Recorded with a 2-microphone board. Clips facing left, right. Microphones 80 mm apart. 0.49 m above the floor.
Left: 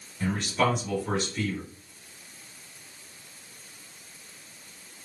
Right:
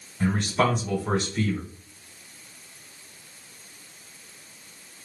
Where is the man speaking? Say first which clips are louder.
Right 3 dB; 45° right (ahead or behind), 1.8 m.